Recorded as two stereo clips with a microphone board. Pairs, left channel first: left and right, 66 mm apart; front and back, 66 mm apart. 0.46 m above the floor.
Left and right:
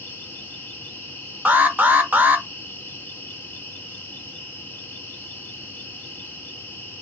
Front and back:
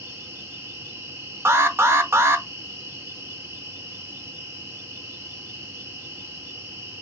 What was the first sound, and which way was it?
An insect, 150° left.